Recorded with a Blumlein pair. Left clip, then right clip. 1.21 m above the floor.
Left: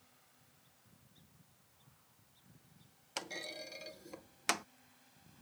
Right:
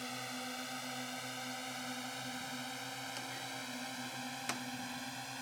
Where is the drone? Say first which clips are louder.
Right 27 dB; 45° right; by 5.4 s 40° right.